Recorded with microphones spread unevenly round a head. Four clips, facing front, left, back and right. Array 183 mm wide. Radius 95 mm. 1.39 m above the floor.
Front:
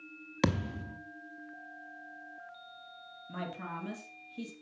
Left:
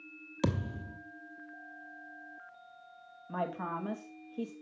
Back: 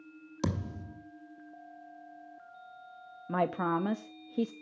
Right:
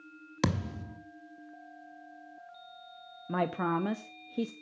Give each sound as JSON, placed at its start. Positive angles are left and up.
{"t": 0.4, "sound": "a thud", "azimuth_deg": -30, "distance_m": 1.0}
{"t": 3.3, "sound": "a woman speaking", "azimuth_deg": -125, "distance_m": 0.7}